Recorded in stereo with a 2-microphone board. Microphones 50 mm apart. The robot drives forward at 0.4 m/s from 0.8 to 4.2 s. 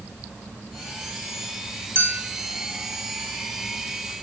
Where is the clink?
45° right (ahead or behind), 1.3 m; by 2.2 s 40° right (ahead or behind), 1.4 m.